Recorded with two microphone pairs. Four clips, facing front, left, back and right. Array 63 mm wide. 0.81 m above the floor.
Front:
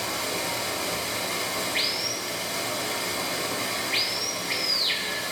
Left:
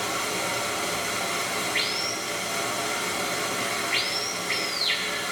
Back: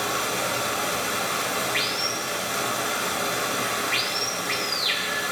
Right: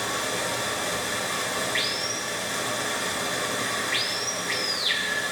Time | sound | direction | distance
0.0 | running water | 175° left | 2.5 m